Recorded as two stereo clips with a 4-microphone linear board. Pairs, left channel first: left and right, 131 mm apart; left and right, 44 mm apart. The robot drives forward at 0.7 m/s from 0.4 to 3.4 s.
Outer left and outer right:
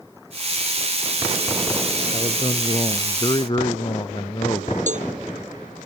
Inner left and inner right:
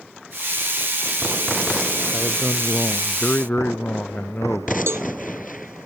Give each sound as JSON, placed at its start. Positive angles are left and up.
{"t": 2.1, "sound": "a man speaking", "side_deg": 40}
{"t": 4.9, "sound": "a cowbell", "side_deg": -60}